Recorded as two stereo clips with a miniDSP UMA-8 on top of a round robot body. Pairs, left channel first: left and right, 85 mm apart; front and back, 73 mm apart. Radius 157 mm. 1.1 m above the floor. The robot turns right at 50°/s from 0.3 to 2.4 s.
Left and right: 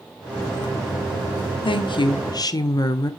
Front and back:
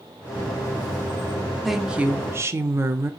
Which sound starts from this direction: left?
A woman speaking, at 1.6 s.